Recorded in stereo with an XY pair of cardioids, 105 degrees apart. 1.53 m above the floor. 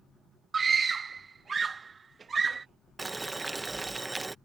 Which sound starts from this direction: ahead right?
A scream, at 0.5 s.